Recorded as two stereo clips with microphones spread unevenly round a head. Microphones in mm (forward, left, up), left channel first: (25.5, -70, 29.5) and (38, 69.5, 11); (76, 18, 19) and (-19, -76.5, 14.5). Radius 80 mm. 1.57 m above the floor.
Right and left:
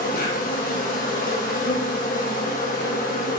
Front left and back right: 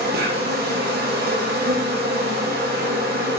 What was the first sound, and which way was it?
An insect, 140° right.